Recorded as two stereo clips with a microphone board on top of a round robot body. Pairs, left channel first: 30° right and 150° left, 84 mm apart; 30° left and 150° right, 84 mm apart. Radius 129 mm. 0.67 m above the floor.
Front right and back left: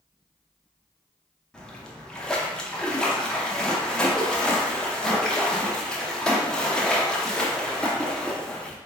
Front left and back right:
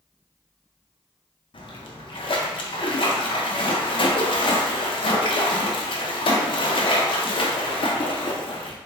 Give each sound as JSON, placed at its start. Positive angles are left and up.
{"t": 1.5, "sound": "a splash", "azimuth_deg": 50, "distance_m": 0.8}